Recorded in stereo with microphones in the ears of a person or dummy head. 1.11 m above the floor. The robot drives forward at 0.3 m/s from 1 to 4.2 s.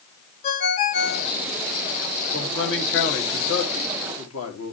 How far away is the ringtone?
About 1.8 m.